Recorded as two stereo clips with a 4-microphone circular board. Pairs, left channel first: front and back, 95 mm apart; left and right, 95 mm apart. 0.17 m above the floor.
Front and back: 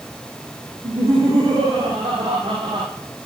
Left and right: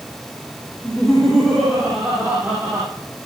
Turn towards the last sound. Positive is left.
turn(degrees=-155)